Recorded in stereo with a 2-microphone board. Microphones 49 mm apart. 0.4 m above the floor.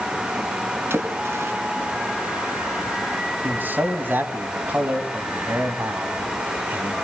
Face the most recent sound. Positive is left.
turn(degrees=-40)  # may be behind; listen again after turning